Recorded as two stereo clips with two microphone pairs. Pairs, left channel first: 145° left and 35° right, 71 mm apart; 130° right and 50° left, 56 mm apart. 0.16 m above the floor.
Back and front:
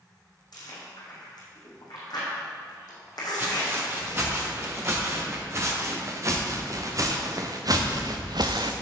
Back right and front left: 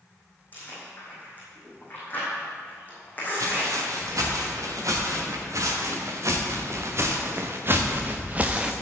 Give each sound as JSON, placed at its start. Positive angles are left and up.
{"t": 0.5, "sound": "chewing", "azimuth_deg": 170, "distance_m": 4.0}
{"t": 3.4, "sound": "footsteps", "azimuth_deg": 25, "distance_m": 4.0}